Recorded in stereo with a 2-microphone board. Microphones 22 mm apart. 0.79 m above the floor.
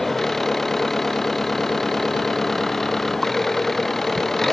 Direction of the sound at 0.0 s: 10° left (ahead or behind).